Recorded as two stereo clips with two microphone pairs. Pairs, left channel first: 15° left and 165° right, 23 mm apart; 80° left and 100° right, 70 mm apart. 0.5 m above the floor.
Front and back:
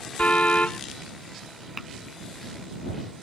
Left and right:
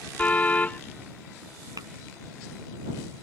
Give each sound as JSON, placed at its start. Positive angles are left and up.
{"t": 0.2, "sound": "a car horn", "azimuth_deg": 15}
{"t": 1.8, "sound": "tapping", "azimuth_deg": -85}